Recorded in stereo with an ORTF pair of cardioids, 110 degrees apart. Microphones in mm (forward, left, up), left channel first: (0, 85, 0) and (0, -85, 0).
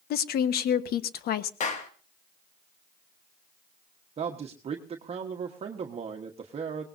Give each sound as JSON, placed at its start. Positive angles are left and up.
{"t": 0.1, "sound": "a woman speaking", "azimuth_deg": 65, "distance_m": 1.4}
{"t": 1.6, "sound": "a clap", "azimuth_deg": 45, "distance_m": 2.0}
{"t": 4.2, "sound": "a man speaking", "azimuth_deg": -35, "distance_m": 1.4}